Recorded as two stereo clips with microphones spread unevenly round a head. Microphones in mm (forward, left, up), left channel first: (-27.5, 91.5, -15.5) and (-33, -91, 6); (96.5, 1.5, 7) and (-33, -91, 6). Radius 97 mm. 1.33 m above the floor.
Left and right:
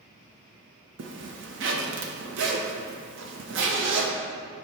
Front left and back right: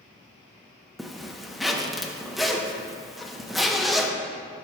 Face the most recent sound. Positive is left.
turn(degrees=-55)